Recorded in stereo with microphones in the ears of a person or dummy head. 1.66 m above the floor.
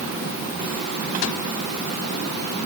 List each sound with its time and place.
Only background noise.